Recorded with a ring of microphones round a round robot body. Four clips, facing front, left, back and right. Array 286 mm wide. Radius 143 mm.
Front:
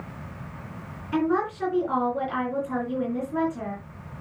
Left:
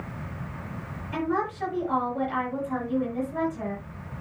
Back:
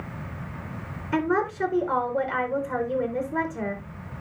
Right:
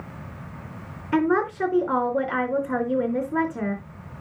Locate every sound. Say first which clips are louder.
1.1 s a woman speaking: right 6 dB, even; 105° right, 3.5 m